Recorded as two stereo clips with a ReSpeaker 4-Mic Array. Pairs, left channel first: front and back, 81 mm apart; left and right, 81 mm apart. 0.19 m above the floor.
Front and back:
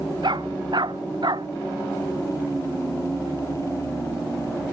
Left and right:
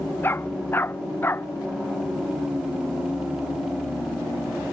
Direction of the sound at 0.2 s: 155° left.